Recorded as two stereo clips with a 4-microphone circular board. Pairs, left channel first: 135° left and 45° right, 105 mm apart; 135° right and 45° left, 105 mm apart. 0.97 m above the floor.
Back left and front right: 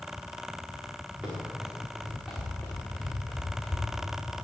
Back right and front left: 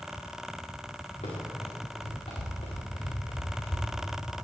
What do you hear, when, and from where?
1.2 s running footsteps: 130° right, 5 m; by 4.2 s 155° right, 5.5 m